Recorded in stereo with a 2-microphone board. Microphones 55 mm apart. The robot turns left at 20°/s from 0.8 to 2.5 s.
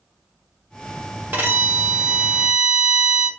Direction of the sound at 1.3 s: 35° right (ahead or behind).